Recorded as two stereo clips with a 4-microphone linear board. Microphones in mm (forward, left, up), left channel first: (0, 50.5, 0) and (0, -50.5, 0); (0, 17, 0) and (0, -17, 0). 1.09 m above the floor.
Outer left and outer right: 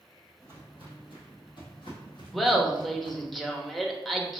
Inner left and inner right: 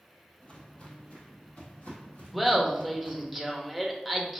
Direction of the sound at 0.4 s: 40° left (ahead or behind).